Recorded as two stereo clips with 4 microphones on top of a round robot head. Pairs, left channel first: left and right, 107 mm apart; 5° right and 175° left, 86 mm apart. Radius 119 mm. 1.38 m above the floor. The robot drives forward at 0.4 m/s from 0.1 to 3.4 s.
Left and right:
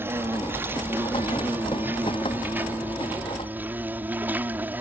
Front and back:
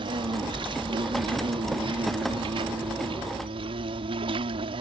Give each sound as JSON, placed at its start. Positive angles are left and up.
{"t": 0.0, "sound": "an insect", "azimuth_deg": -160}